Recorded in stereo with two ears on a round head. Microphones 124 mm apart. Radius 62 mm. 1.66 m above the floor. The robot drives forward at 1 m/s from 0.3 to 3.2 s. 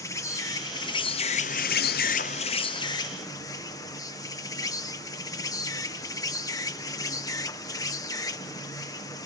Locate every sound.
0.0 s an insect: 25° left (ahead or behind)